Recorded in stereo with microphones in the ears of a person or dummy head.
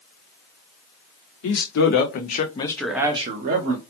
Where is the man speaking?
75° left (ahead or behind), 1.1 m; by 3.8 s 45° right (ahead or behind), 0.8 m.